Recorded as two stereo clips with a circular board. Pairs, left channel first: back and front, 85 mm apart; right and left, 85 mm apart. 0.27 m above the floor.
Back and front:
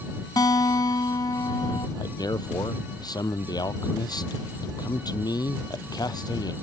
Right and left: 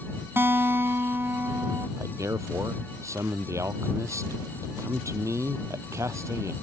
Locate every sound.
0.4 s a guitar: 150° left
2.0 s a man speaking: 145° left